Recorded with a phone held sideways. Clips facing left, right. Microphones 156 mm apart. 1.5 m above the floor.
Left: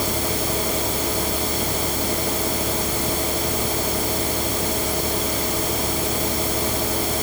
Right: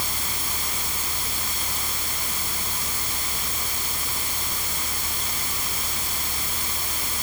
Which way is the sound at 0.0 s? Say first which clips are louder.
Left 12 dB; 90° left.